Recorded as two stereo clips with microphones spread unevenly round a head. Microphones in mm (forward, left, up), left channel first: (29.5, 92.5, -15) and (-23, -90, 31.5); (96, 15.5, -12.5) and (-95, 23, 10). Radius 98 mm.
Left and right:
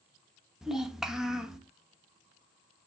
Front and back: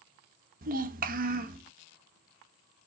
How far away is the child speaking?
About 0.6 m.